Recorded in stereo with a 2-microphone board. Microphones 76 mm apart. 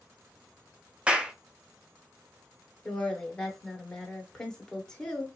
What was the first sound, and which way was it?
A clap, 15° right (ahead or behind).